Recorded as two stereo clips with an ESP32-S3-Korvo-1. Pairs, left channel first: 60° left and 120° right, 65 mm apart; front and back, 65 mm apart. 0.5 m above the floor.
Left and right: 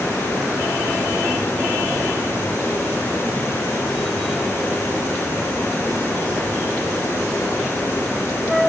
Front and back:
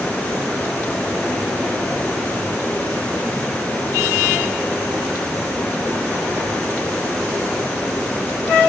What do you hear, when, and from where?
Only background noise.